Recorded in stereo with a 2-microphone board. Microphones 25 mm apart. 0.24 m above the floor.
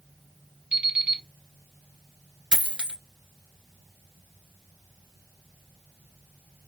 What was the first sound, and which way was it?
An alarm clock, 50° right (ahead or behind).